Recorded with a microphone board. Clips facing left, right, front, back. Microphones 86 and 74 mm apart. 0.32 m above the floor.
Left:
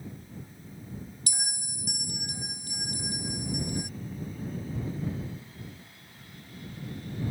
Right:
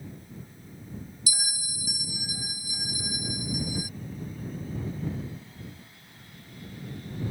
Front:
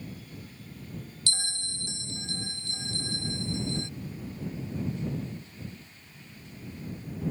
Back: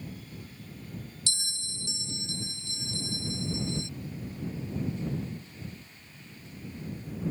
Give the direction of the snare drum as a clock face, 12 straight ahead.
No snare drum in this recording.